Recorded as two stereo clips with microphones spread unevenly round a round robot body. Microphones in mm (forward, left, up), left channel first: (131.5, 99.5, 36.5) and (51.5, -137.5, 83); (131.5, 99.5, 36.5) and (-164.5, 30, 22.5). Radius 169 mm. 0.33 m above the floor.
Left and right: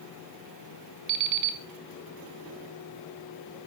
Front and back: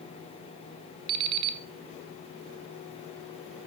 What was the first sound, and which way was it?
An alarm clock, 165° right.